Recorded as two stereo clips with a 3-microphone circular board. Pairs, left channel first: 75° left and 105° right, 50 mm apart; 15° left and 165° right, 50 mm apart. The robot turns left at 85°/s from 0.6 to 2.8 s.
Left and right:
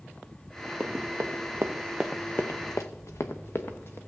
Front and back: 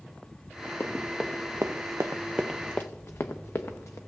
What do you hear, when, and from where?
0.8 s running footsteps: 40° right, 1.0 m; by 4.0 s 35° left, 1.2 m